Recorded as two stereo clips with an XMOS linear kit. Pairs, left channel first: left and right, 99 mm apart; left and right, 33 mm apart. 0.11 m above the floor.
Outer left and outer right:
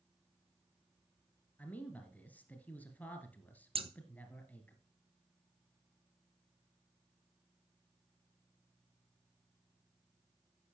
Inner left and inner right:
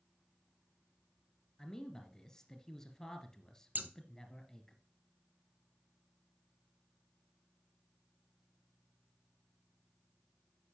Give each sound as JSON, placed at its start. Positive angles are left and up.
{"t": 1.6, "sound": "a man speaking", "side_deg": 15, "distance_m": 1.8}
{"t": 3.8, "sound": "scissors", "side_deg": -70, "distance_m": 0.9}